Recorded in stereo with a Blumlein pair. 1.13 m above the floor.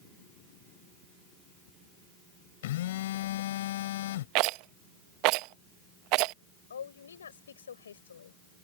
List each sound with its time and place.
2.6 s a phone buzzing: 55° left
4.3 s a rattle: 40° right
6.7 s a woman speaking: 70° left